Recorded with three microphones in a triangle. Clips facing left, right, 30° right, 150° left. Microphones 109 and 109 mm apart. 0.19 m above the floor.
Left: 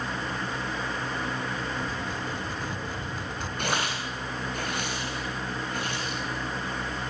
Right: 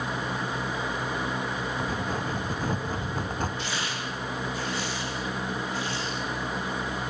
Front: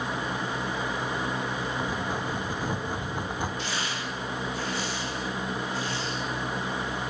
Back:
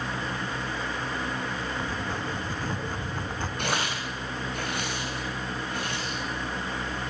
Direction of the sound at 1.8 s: 100° right.